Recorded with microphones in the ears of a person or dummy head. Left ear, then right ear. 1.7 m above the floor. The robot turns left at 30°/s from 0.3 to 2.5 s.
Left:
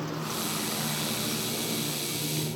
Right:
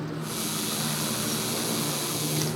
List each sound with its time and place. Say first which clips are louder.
0.0 s a motorcycle: even; 25° left (ahead or behind); by 2.6 s 45° right (ahead or behind)